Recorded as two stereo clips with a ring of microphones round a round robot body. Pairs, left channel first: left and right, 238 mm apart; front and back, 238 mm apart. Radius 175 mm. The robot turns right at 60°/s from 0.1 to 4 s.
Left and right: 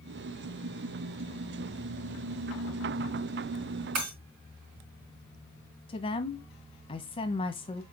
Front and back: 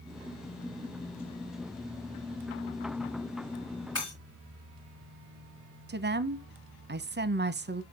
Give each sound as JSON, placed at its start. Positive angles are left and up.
{"t": 4.0, "sound": "breaking glass", "azimuth_deg": -80, "distance_m": 3.5}
{"t": 5.9, "sound": "a woman speaking", "azimuth_deg": 155, "distance_m": 0.8}